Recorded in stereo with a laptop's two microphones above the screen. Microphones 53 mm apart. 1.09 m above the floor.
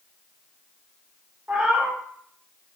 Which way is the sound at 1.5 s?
25° right (ahead or behind).